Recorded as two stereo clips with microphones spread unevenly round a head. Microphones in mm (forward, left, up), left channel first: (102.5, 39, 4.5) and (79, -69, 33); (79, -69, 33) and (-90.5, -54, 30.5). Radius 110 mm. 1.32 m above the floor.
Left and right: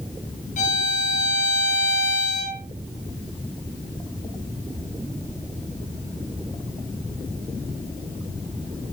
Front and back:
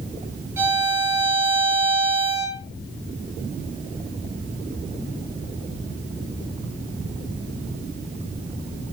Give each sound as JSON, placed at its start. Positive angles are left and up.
{"t": 0.6, "sound": "a violin", "azimuth_deg": 95, "distance_m": 4.5}